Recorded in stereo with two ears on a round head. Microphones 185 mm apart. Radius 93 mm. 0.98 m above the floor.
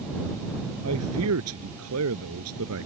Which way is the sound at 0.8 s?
85° right.